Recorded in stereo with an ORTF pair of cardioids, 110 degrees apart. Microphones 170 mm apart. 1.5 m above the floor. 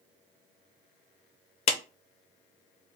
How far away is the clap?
About 0.6 m.